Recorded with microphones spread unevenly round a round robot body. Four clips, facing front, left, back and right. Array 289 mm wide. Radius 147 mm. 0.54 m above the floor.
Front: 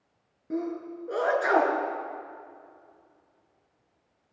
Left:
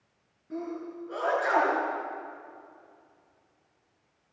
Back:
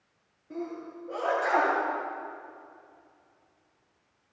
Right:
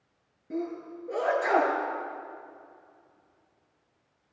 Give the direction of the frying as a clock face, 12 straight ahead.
I don't hear frying.